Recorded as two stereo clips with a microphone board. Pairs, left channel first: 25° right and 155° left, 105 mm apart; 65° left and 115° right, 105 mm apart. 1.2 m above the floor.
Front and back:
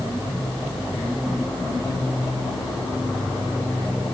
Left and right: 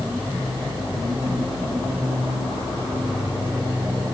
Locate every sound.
Only background noise.